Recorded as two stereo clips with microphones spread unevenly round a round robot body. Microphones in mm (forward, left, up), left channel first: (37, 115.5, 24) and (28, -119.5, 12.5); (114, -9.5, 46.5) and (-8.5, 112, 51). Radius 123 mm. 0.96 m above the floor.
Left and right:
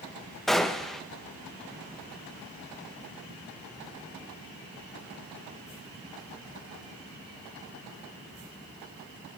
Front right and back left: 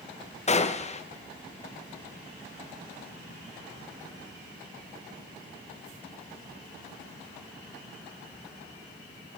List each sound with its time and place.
0.5 s a gunshot: straight ahead, 0.7 m